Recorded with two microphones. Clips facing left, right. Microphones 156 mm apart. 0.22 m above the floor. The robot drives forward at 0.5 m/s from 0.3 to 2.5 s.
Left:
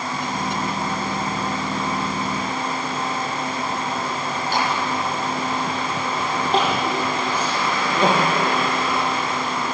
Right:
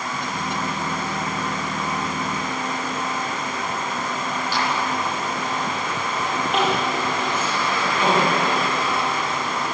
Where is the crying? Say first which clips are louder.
Left 1 dB; 35° left (ahead or behind), 7.5 m.